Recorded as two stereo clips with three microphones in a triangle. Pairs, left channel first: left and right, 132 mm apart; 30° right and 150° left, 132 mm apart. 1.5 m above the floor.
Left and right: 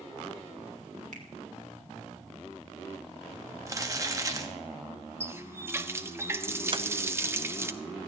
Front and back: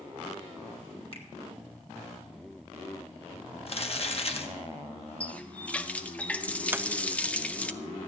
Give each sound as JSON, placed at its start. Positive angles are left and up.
{"t": 1.1, "sound": "a finger snap", "azimuth_deg": -75, "distance_m": 1.8}
{"t": 3.7, "sound": "crumpling", "azimuth_deg": -35, "distance_m": 1.2}
{"t": 5.2, "sound": "a running tap", "azimuth_deg": -90, "distance_m": 0.6}
{"t": 6.7, "sound": "a sliding door", "azimuth_deg": -135, "distance_m": 0.7}